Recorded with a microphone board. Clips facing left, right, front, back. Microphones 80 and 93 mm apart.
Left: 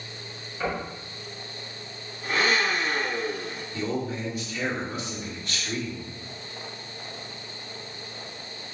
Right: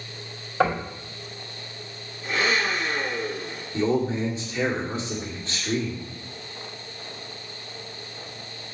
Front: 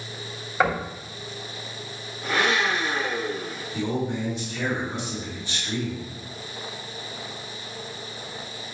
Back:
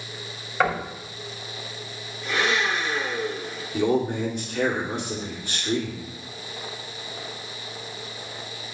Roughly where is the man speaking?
Behind right.